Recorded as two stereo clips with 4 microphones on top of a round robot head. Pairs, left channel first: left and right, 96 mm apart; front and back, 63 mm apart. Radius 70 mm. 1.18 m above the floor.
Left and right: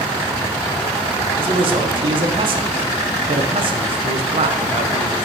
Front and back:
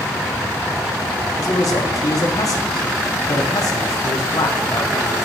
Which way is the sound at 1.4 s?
45° right.